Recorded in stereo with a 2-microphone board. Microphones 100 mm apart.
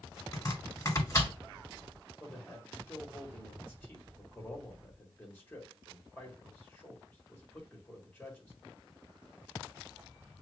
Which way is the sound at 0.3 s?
30° left (ahead or behind).